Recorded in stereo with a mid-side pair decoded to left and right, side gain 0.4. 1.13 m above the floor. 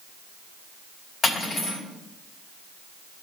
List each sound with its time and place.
1.2 s cutlery clinking: 55° left, 4.5 m